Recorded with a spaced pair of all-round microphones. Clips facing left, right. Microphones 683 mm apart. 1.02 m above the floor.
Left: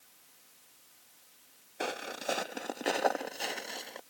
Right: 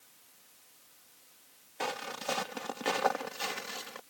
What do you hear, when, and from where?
1.8 s footsteps: 30° right (ahead or behind); by 4.0 s 35° right (ahead or behind)